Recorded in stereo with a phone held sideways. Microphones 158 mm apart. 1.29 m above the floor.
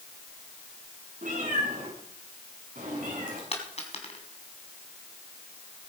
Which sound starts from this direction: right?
A cat meowing, at 1.2 s.